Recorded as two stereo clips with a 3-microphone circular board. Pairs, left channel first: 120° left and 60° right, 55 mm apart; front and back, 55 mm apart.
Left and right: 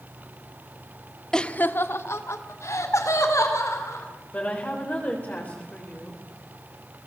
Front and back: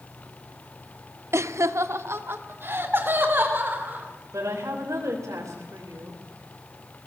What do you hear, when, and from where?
1.3 s laughter: 165° right, 0.8 m; by 4.0 s 130° left, 4 m
4.3 s a woman speaking: straight behind, 4 m